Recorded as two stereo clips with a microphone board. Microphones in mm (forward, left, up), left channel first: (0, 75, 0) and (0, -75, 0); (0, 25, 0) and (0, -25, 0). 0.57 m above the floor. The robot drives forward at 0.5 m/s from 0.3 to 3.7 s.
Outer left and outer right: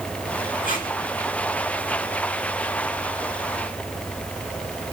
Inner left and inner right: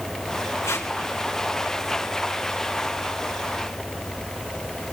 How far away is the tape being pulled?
About 7.5 m.